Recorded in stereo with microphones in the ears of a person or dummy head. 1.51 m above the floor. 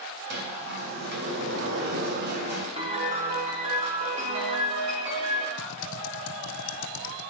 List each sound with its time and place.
0.3 s a sliding door: 55° right (ahead or behind), 3 m
2.8 s a piano: 35° right (ahead or behind), 4.5 m
5.6 s typing on a keyboard: 70° left (ahead or behind), 1.1 m